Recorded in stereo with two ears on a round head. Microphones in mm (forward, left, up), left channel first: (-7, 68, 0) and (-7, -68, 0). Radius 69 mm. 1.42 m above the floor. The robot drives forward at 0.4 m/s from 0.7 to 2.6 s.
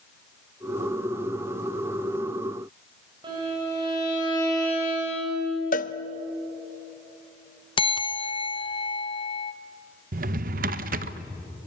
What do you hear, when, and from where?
3.2 s a violin: 30° right (ahead or behind), 8 m
5.7 s a cowbell: 55° left (ahead or behind), 0.8 m
7.8 s a bell: 30° left (ahead or behind), 0.6 m
10.1 s a drawer: 60° right (ahead or behind), 0.8 m